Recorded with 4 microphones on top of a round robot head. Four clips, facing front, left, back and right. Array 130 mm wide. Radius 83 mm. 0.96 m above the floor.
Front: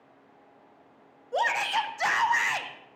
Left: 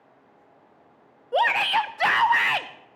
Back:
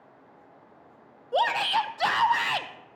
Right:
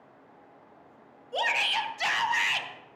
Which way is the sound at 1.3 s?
110° left.